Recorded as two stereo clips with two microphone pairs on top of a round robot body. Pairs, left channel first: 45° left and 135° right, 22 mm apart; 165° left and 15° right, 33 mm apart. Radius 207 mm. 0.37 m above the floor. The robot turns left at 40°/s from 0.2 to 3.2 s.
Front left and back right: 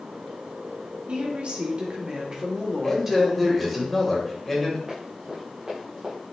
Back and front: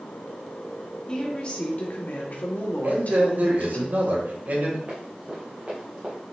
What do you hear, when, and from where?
1.1 s a woman speaking: 130° right, 2.0 m; by 3.8 s 145° left, 2.0 m
2.8 s a man speaking: 25° right, 2.5 m; by 4.8 s 40° right, 2.5 m
4.9 s running footsteps: 70° right, 3 m; by 6.2 s 80° right, 3.5 m